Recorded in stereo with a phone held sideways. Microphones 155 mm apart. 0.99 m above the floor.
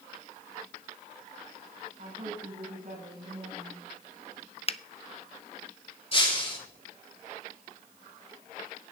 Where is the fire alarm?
No fire alarm in this recording.